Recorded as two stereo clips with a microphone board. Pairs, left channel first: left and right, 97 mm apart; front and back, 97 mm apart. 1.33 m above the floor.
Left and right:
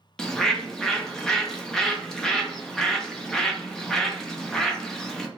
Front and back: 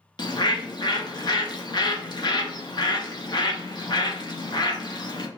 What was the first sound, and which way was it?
A bird, 10° left.